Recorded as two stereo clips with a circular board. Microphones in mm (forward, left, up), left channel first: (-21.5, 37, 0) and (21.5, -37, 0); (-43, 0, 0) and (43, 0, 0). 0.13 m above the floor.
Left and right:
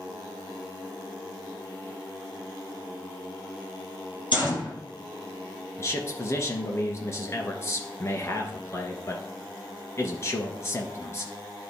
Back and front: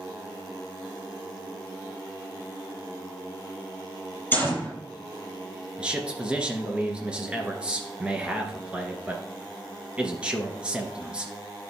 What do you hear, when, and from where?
4.3 s a gunshot: 115° left, 3 m
5.8 s a man speaking: 75° left, 1.7 m